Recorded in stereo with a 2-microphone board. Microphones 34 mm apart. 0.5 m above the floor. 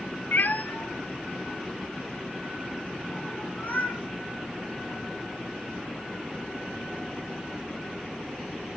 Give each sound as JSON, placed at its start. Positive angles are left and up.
{"t": 0.3, "sound": "a cat meowing", "side_deg": 55, "distance_m": 0.5}